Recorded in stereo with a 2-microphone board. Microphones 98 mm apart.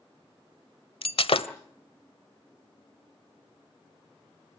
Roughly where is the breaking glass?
Left.